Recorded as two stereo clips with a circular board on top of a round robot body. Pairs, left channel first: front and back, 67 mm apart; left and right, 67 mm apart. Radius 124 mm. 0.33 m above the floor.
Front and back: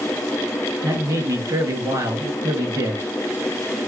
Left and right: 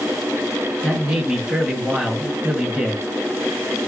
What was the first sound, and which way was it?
A man speaking, 170° right.